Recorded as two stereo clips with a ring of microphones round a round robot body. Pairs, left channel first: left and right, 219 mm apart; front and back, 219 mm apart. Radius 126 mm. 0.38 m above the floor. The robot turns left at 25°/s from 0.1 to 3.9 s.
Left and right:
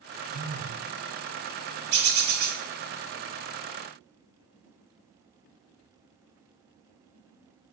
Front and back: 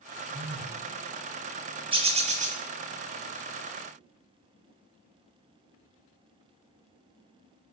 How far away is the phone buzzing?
About 0.7 m.